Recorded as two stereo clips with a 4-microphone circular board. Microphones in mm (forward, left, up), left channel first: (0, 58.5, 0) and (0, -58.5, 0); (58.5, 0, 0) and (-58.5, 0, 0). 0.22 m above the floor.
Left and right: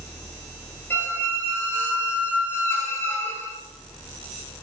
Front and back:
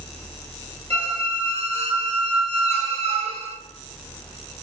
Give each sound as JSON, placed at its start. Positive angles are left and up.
{"t": 0.9, "sound": "a squeak", "azimuth_deg": 160, "distance_m": 0.6}